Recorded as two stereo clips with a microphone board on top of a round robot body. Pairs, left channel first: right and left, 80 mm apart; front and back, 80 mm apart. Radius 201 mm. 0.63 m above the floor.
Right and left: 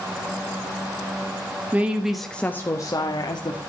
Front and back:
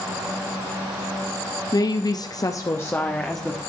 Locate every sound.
1.7 s a woman speaking: 25° left, 1.7 m; by 3.6 s 85° right, 2 m